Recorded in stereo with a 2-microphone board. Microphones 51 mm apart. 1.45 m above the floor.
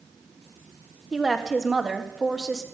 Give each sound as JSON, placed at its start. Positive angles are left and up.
{"t": 1.1, "sound": "a woman speaking", "side_deg": -10, "distance_m": 1.6}